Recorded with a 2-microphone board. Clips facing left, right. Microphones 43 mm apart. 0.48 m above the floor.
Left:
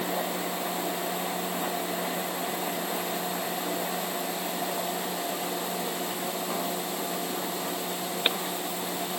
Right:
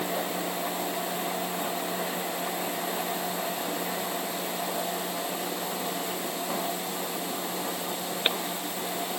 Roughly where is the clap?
I don't hear a clap.